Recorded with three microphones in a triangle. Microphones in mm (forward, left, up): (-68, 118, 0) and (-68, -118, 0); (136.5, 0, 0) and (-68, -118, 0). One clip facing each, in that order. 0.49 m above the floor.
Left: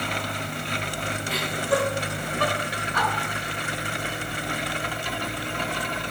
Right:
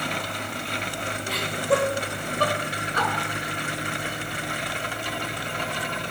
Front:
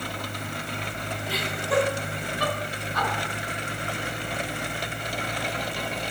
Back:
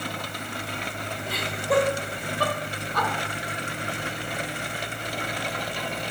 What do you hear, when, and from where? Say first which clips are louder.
1.3 s laughter: right 2 dB, back 3 dB; 115° right, 2.5 m; by 3.1 s 145° right, 1.7 m